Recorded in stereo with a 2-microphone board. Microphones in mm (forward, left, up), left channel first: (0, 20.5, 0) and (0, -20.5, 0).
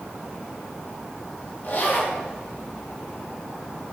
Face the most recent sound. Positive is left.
turn(degrees=50)  # may be behind; listen again after turning